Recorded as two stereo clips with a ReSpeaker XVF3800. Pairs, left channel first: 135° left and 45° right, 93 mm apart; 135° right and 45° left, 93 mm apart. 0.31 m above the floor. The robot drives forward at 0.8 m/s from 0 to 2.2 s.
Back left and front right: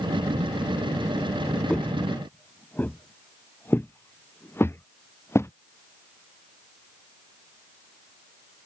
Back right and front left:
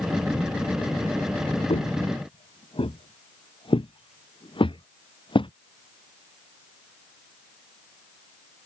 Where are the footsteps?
145° right; by 5.5 s 160° right.